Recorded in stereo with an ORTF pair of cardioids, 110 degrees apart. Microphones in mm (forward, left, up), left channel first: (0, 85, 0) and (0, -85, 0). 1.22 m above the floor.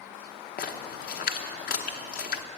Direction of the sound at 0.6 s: 60° left.